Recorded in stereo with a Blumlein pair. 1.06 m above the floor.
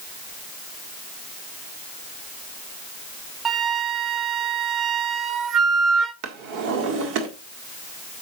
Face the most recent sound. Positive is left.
turn(degrees=-40)